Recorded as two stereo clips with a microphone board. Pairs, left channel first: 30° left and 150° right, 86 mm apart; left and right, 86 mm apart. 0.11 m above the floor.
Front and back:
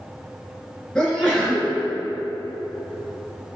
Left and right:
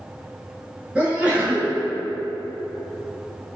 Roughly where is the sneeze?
Ahead right.